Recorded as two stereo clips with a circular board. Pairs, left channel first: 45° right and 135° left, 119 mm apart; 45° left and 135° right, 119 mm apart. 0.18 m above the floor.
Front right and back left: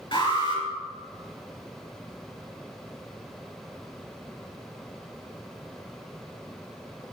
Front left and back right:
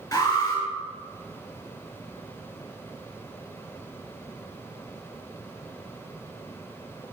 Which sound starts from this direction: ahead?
An alarm, at 0.1 s.